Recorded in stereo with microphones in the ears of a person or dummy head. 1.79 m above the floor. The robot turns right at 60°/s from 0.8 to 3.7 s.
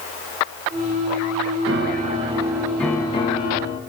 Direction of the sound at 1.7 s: 60° right.